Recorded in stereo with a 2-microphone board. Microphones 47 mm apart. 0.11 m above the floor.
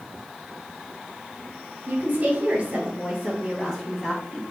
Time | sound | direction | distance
1.9 | a woman speaking | 40° right (ahead or behind) | 1.4 m